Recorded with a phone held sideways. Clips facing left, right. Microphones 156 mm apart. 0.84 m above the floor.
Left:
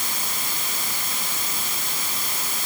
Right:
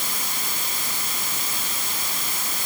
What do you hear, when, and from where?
Only background noise.